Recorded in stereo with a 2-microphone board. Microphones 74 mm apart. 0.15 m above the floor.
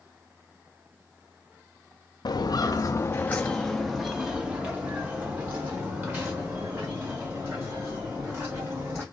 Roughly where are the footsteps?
Left.